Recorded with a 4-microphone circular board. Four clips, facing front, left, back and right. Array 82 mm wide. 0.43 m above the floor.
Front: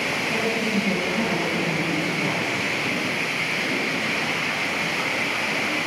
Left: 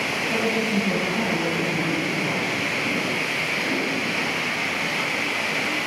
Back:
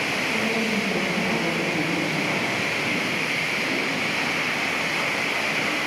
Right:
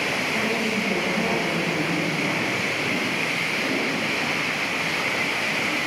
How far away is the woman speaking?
About 3 m.